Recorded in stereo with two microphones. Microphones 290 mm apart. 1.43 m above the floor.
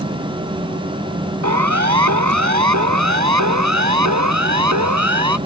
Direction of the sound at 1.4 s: 75° right (ahead or behind).